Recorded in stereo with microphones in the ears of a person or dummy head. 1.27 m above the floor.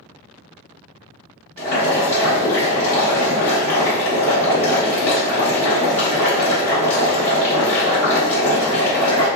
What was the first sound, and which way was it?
Boiling, 10° left (ahead or behind).